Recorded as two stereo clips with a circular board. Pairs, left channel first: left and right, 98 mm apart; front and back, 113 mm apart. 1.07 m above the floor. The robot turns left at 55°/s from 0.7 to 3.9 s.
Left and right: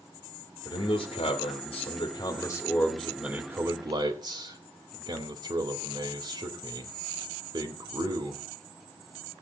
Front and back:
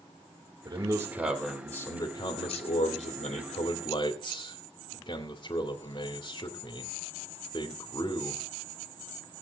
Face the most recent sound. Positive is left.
turn(degrees=-55)